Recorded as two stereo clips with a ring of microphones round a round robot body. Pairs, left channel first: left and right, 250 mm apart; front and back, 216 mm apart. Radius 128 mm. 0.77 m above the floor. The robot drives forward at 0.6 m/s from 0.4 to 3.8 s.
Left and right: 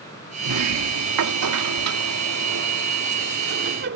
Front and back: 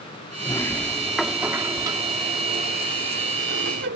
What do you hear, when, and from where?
0.4 s a sliding door: 75° right; by 4.0 s 135° right